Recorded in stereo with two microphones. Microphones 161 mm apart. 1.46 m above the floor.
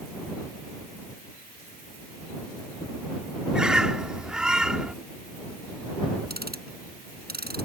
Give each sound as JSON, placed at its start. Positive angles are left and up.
{"t": 3.5, "sound": "a bird", "side_deg": -5}
{"t": 6.3, "sound": "ticking", "side_deg": -75}